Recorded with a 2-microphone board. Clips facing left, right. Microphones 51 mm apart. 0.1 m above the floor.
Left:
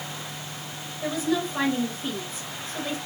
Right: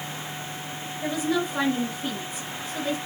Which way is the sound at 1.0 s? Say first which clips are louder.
Even; 5° right (ahead or behind).